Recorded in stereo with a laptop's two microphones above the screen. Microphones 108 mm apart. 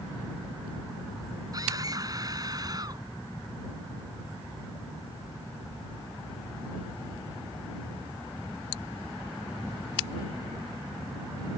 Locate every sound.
1.5 s a scream: 35° right (ahead or behind)